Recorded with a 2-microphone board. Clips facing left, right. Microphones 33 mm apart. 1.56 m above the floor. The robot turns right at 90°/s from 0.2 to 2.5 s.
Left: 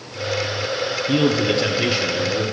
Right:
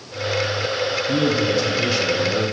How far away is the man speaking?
About 0.6 m.